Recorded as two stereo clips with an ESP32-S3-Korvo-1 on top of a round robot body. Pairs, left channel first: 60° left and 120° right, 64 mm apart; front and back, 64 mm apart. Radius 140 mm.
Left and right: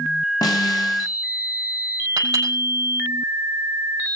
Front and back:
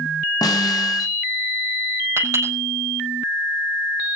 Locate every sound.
0.4 s a snare drum: 30° left, 1.7 m
2.2 s a clink: 135° right, 5.5 m